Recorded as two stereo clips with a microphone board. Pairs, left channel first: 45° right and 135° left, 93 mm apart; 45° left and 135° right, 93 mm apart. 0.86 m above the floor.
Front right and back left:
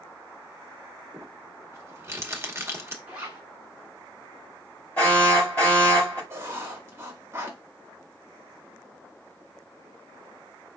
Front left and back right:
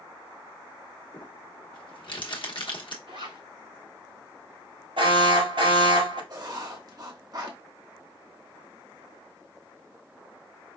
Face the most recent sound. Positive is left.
turn(degrees=-170)